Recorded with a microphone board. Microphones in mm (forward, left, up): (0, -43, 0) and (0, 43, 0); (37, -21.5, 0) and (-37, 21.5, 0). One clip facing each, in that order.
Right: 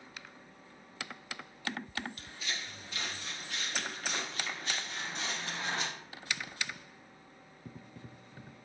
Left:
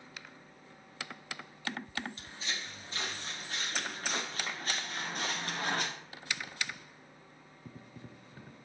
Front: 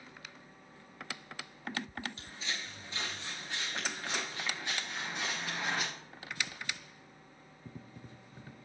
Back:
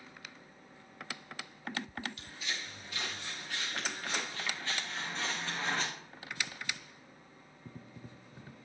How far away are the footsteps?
About 5 m.